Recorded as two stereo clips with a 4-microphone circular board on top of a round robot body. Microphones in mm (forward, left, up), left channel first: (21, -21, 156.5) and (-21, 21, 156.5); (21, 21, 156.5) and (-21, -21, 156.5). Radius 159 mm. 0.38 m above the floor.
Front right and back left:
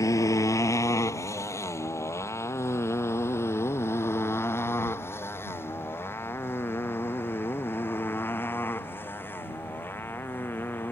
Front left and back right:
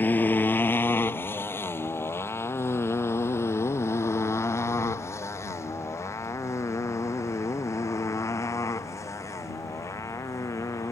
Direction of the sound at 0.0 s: 15° right.